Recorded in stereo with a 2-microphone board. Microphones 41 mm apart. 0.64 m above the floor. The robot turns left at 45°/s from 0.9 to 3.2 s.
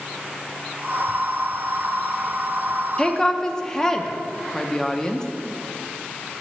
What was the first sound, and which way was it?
A woman speaking, 20° left (ahead or behind).